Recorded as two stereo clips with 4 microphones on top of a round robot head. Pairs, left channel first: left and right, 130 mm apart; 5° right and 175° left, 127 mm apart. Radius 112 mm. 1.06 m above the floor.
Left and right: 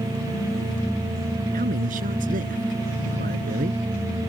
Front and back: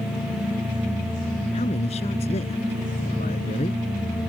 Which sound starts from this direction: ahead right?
A man speaking, at 1.5 s.